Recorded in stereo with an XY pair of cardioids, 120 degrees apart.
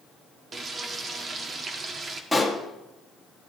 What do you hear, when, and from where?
0.5 s frying: 35° right, 1.3 m
2.3 s a pop: 5° left, 1.8 m